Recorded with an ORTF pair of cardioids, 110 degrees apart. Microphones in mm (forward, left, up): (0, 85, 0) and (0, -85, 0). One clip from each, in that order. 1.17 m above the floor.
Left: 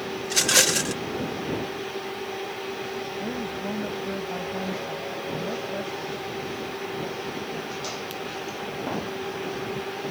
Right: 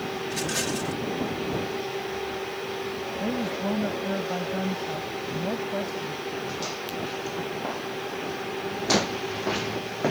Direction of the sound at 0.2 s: 65° left.